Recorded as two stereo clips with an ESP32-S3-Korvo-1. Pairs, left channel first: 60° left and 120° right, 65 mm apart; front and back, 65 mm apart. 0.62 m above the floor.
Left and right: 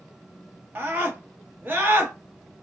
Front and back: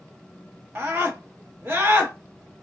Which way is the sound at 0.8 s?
155° right.